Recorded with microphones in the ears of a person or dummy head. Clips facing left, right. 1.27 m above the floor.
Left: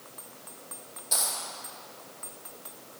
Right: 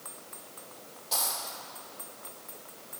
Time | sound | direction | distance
1.1 | a dropped coin | 15° left (ahead or behind) | 0.9 m